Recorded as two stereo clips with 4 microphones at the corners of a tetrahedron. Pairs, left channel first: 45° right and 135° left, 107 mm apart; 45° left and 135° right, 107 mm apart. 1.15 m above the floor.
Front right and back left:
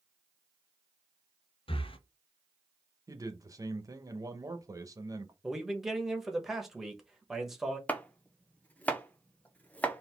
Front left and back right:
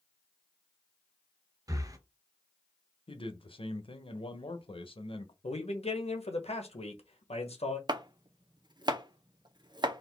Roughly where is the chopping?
Behind right.